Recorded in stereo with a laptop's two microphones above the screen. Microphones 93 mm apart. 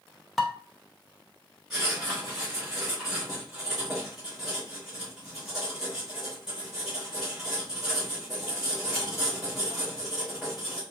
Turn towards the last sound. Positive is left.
turn(degrees=0)  # may be behind; listen again after turning